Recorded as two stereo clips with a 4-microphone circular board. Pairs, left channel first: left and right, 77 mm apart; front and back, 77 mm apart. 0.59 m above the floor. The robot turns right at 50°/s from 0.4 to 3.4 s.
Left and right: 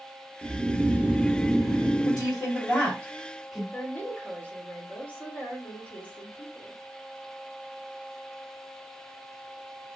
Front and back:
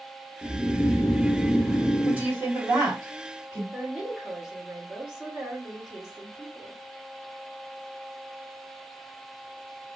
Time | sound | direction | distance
0.4 | snoring | 60° right | 0.7 m
2.0 | a woman speaking | 110° left | 1.4 m
3.7 | a woman speaking | 115° left | 0.9 m